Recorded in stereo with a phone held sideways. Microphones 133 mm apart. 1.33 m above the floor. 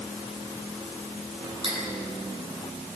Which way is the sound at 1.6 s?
45° right (ahead or behind).